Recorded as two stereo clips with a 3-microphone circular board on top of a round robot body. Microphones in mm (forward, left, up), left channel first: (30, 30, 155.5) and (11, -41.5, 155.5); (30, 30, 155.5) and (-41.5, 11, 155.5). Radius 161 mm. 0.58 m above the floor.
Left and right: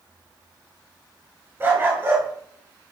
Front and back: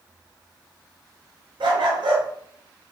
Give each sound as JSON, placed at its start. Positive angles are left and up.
{"t": 1.6, "sound": "a dog barking", "azimuth_deg": -170, "distance_m": 5.5}